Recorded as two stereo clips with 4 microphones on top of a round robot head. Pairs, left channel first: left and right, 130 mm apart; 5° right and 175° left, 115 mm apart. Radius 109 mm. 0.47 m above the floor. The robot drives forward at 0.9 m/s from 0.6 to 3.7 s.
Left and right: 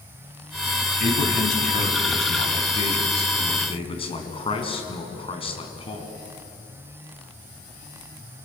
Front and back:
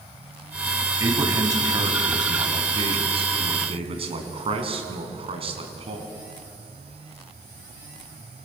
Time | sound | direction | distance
1.0 | a man speaking | 110° left | 3.5 m